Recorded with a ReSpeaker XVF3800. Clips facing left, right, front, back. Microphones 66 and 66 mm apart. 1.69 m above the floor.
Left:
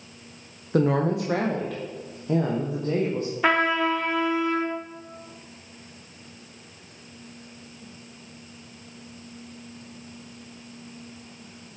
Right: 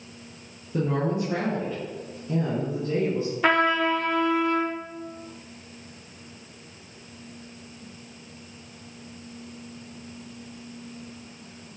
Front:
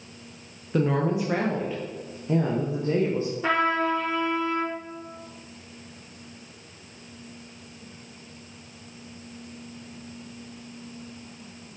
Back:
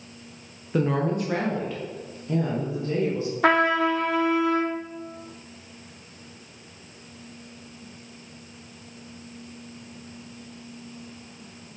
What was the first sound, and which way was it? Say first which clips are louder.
A woman speaking: left 4 dB, even; 95° left.